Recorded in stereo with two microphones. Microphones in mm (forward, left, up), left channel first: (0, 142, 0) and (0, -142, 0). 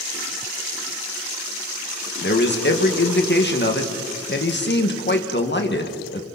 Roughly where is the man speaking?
Left.